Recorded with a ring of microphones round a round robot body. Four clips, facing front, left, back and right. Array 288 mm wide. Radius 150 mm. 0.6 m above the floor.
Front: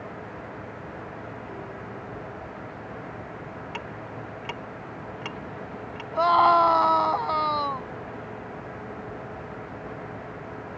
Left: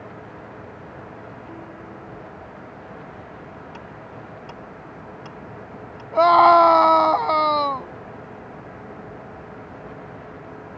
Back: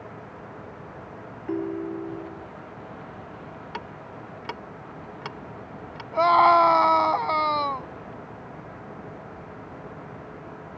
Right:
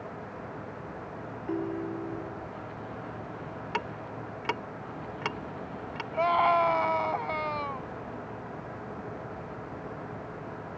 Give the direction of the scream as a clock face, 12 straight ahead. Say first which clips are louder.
Left 12 dB, back 2 dB; 9 o'clock.